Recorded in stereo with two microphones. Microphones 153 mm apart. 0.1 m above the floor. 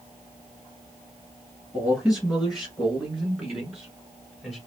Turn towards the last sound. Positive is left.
turn(degrees=0)  # may be behind; listen again after turning